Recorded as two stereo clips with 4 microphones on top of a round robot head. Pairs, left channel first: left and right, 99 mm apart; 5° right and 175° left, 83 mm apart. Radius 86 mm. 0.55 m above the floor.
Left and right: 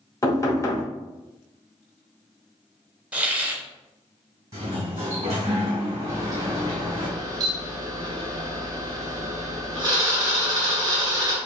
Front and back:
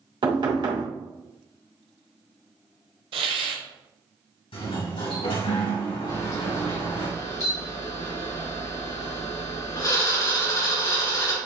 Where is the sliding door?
25° right, 2.5 m.